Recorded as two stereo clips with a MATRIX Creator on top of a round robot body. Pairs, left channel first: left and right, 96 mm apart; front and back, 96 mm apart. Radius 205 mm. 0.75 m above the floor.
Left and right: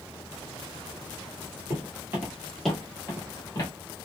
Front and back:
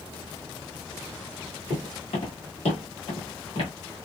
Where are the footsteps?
35° right, 1.2 m; by 3.7 s 40° left, 1.3 m.